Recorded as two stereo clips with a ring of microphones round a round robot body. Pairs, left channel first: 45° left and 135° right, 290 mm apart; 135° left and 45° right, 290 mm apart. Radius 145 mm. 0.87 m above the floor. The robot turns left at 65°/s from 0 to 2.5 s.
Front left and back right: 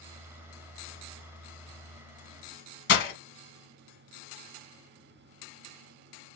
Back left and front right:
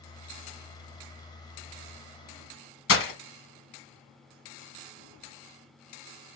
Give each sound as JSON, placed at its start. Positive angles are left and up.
{"t": 2.9, "sound": "breaking glass", "azimuth_deg": 90, "distance_m": 1.4}